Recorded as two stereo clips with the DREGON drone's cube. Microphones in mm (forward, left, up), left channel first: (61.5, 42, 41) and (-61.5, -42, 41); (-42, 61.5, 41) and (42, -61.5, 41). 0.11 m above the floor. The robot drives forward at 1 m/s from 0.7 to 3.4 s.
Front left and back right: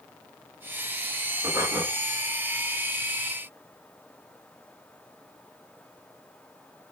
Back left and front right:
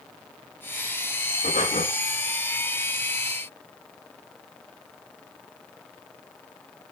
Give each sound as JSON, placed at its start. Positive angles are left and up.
{"t": 1.4, "sound": "breathing", "azimuth_deg": 140, "distance_m": 5.0}